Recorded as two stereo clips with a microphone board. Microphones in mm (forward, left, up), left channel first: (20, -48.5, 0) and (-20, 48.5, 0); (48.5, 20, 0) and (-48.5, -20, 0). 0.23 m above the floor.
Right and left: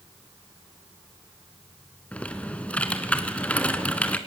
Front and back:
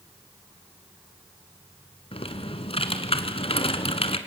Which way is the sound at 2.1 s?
10° left.